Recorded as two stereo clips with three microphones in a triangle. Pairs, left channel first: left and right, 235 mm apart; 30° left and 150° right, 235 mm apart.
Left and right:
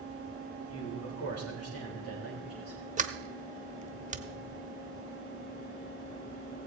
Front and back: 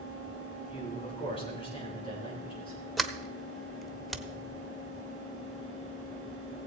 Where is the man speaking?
95° left, 2.5 m.